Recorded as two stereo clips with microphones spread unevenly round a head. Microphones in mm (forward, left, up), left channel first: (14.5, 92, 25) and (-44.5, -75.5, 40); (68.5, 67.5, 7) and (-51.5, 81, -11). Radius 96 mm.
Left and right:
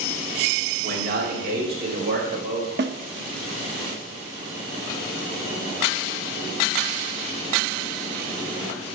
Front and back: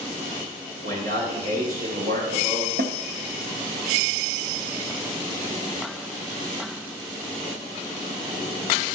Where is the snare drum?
140° right, 1.0 m.